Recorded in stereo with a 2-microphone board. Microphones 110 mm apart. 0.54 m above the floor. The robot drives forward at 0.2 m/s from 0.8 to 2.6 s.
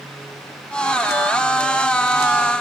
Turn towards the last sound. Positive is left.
No sound to turn to.